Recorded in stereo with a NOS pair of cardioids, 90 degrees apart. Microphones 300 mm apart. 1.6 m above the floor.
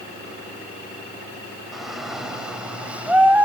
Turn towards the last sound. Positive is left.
turn(degrees=-5)